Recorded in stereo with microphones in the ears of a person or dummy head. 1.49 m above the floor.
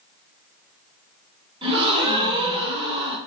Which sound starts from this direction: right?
A gasp, at 1.6 s.